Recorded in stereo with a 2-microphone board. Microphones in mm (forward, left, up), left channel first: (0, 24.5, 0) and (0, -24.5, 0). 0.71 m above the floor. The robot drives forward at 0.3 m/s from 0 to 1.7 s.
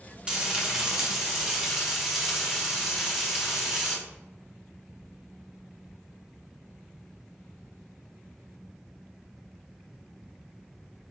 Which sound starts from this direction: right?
Frying, at 0.3 s.